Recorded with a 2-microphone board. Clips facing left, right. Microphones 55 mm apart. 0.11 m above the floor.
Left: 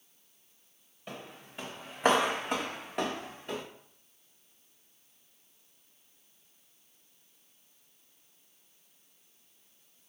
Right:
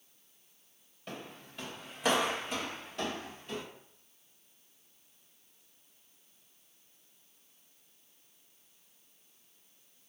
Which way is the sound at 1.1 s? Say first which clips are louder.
Even; 10° left (ahead or behind).